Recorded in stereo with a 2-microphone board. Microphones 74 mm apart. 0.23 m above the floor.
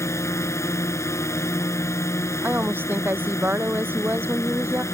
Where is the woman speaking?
30° right (ahead or behind).